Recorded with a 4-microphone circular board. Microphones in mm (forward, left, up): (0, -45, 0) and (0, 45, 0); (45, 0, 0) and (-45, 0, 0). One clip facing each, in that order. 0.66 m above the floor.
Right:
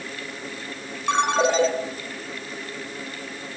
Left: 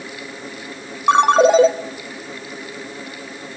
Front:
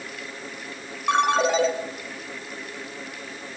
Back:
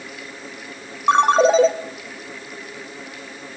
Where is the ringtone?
125° left, 2 m.